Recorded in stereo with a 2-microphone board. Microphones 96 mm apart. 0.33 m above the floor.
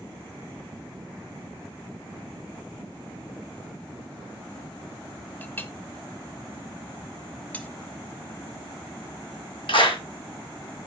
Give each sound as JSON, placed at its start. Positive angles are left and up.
{"t": 5.4, "sound": "a clink", "side_deg": 20, "distance_m": 0.8}
{"t": 7.5, "sound": "cutlery clinking", "side_deg": 15, "distance_m": 1.1}
{"t": 9.7, "sound": "a clap", "side_deg": 65, "distance_m": 2.0}